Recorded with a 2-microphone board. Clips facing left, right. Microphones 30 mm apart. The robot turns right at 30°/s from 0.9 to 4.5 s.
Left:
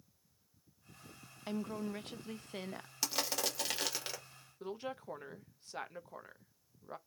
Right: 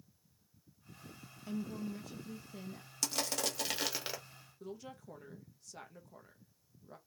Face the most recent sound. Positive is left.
turn(degrees=45)  # may be behind; listen again after turning